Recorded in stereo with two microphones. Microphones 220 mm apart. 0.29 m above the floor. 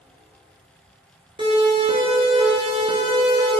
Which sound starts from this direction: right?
A siren, at 1.4 s.